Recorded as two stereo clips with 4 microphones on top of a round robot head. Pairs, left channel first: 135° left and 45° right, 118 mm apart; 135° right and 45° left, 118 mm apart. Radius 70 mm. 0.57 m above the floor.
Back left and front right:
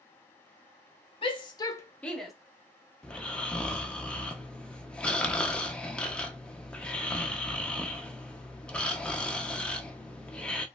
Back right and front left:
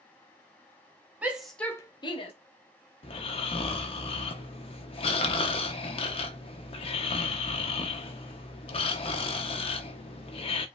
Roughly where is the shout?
Behind left.